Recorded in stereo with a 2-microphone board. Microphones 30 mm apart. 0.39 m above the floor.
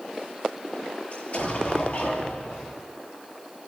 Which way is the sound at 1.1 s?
50° left (ahead or behind).